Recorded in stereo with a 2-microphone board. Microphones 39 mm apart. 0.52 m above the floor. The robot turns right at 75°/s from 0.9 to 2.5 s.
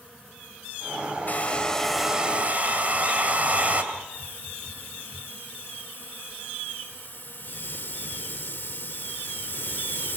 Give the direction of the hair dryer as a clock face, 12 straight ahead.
8 o'clock.